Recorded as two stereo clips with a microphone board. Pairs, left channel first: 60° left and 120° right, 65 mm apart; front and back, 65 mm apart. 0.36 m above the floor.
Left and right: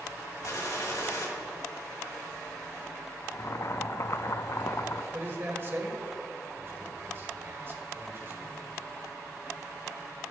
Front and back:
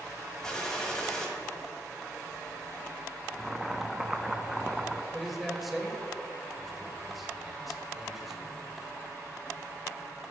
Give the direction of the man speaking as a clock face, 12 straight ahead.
3 o'clock.